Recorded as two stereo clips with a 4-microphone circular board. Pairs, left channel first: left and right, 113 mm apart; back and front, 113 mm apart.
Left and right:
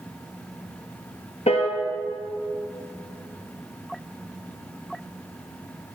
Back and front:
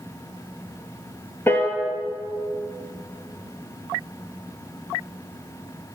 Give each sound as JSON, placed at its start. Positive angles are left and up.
{"t": 1.5, "sound": "a piano", "azimuth_deg": 110, "distance_m": 1.0}